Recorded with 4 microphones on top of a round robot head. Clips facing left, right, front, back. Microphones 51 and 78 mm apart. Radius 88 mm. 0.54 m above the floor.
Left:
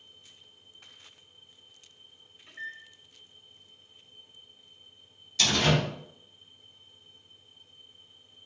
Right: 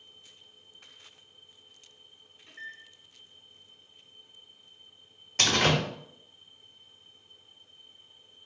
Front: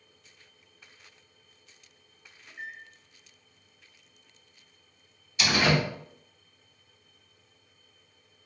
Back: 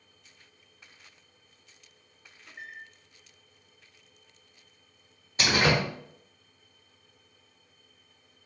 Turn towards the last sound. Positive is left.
turn(degrees=-125)